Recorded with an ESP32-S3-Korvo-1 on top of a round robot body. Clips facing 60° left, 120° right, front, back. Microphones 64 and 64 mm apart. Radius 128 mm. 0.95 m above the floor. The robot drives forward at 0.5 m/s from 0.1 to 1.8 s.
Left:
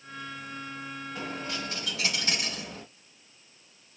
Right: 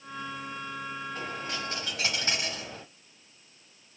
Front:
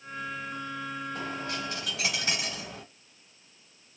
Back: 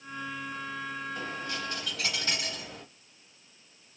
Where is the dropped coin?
25° right, 0.8 m; by 2.8 s 65° right, 0.7 m.